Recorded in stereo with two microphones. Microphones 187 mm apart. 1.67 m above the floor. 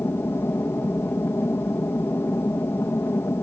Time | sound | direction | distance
0.0 | an aircraft | 10° left (ahead or behind) | ?